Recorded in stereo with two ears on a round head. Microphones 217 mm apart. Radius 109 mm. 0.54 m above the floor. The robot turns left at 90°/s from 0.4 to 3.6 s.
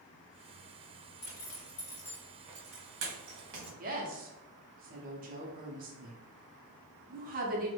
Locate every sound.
1.2 s a zipper: 70° left (ahead or behind), 1.2 m; by 3.7 s 45° right (ahead or behind), 1.2 m
3.8 s a woman speaking: 35° right (ahead or behind), 0.7 m